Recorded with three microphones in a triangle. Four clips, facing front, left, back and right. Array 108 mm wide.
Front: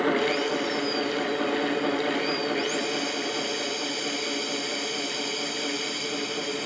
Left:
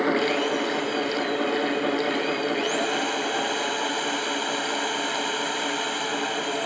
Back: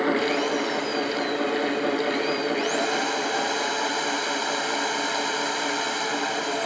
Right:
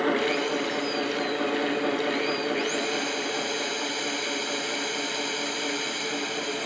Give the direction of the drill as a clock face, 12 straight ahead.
7 o'clock.